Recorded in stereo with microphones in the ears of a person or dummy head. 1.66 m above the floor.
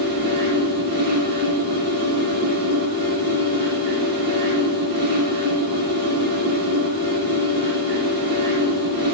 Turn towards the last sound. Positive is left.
turn(degrees=-45)  # may be behind; listen again after turning